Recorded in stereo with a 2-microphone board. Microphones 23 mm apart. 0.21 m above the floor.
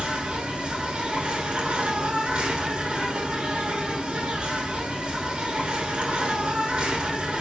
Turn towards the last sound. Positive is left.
turn(degrees=-55)  # may be behind; listen again after turning